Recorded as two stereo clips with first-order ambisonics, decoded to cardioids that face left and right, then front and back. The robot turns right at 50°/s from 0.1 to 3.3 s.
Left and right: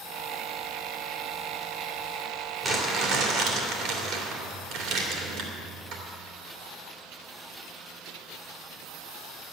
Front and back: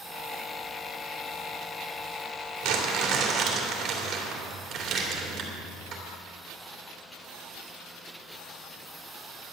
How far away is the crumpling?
About 2.5 m.